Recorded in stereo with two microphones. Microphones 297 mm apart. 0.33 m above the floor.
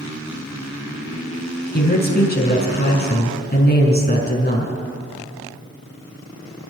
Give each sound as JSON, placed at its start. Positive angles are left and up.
{"t": 1.7, "sound": "a man speaking", "side_deg": 35, "distance_m": 3.5}